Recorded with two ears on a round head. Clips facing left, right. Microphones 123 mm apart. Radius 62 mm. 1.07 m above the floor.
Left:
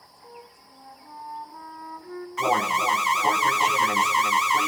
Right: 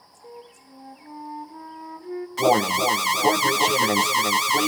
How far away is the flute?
About 2.5 m.